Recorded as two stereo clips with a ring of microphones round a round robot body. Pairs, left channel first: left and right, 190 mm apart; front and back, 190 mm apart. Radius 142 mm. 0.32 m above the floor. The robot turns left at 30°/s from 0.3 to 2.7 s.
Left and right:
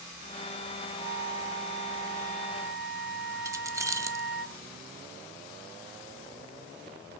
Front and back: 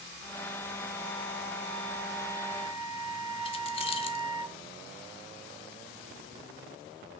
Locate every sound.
1.0 s a flute: 120° right, 1.0 m; by 4.5 s 175° right, 1.0 m
3.5 s keys jangling: 25° right, 0.6 m